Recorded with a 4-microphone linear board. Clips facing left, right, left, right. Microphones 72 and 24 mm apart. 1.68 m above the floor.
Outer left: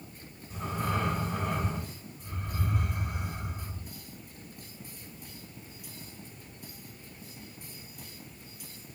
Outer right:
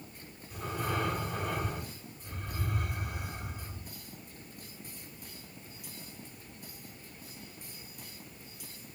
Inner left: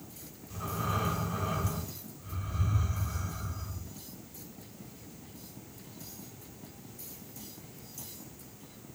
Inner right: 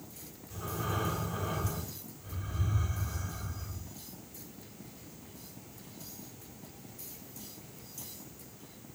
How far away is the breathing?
About 2.5 m.